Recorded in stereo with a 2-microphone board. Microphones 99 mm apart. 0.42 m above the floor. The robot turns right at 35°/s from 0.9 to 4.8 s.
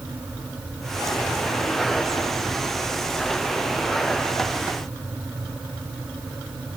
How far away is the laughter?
No laughter in this recording.